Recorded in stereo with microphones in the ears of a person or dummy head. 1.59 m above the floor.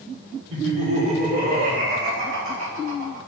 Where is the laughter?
35° right (ahead or behind), 1.3 m; by 3.2 s 75° right (ahead or behind), 1.9 m.